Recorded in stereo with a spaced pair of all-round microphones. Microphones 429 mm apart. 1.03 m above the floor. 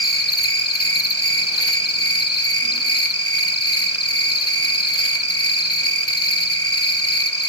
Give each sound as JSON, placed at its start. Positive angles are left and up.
{"t": 0.0, "sound": "an insect", "side_deg": 30, "distance_m": 1.2}